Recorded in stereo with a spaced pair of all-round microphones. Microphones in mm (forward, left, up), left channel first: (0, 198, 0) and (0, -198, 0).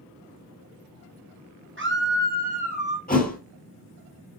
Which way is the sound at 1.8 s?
30° right (ahead or behind).